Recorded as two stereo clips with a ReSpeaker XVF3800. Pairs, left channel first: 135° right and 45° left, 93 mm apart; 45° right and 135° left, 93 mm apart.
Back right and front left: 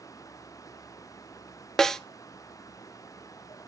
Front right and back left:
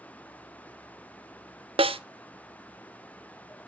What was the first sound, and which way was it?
A snare drum, 140° left.